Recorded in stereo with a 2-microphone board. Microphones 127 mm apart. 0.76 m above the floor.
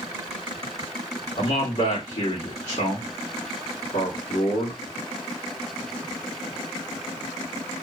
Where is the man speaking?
65° left (ahead or behind), 1.9 m.